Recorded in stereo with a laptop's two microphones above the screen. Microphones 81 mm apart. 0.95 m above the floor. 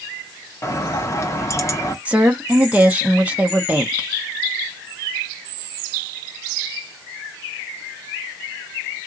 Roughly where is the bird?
Left.